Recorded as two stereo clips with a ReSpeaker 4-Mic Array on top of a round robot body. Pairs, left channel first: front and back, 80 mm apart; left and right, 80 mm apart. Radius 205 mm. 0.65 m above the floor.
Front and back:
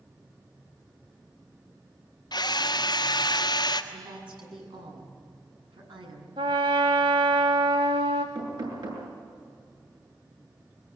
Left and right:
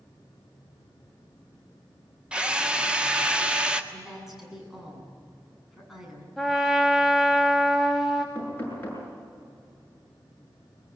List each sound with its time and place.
2.3 s a drill: 15° right, 1.9 m
3.9 s a woman speaking: 175° right, 8 m
6.4 s a trumpet: straight behind, 0.5 m
8.3 s knocking: 155° left, 8 m